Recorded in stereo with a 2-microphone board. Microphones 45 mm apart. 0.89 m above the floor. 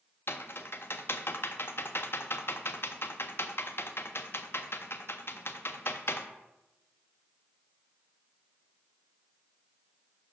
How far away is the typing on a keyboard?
About 0.5 m.